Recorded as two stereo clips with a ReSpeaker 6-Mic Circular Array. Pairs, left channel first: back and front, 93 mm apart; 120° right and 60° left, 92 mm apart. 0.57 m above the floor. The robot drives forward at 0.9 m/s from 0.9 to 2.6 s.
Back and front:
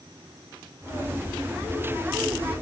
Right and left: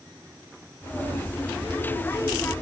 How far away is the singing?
I don't hear singing.